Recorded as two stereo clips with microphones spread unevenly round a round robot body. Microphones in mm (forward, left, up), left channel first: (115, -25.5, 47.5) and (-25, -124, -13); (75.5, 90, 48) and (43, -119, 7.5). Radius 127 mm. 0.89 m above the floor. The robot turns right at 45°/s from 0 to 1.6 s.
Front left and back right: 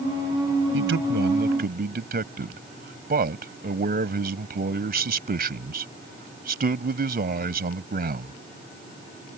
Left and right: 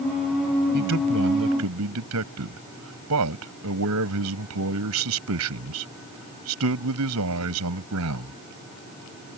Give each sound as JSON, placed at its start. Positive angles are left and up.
{"t": 0.7, "sound": "a man speaking", "azimuth_deg": -150}